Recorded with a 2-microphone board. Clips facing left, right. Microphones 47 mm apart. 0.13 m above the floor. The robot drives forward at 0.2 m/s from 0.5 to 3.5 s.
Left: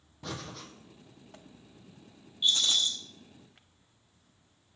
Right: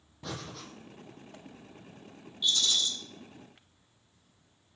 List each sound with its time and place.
0.2 s breathing: centre (ahead or behind), 1.1 m
2.4 s a rattle: 35° left (ahead or behind), 1.1 m; by 2.9 s 30° left (ahead or behind), 1.2 m